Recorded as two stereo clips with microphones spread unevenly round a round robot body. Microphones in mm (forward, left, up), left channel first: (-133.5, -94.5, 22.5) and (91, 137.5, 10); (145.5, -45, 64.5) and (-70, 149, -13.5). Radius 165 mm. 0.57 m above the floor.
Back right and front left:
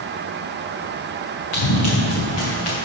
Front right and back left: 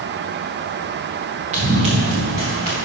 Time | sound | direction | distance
1.5 | running footsteps | 150° right | 2 m